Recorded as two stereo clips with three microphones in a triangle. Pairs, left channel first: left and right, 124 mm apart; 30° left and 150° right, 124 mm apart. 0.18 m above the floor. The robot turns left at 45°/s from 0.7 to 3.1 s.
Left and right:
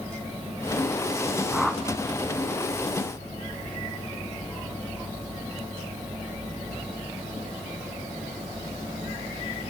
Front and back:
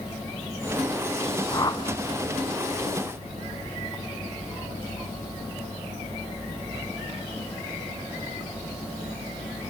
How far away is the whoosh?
About 1.7 m.